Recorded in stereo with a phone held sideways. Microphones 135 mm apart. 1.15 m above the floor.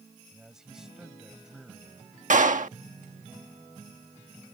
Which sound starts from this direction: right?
A clap, at 2.3 s.